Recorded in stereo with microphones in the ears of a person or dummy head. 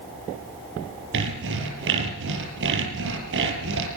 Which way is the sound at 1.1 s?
65° right (ahead or behind).